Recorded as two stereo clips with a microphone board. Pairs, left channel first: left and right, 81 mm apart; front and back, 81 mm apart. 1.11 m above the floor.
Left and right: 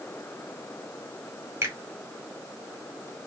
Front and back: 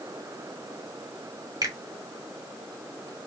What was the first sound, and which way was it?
A finger snap, 145° right.